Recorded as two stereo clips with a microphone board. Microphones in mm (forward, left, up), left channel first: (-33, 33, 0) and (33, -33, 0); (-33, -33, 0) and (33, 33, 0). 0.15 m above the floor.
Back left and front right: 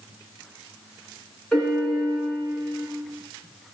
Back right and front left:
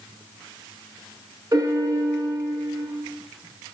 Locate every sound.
1.5 s a piano: 55° left, 1.0 m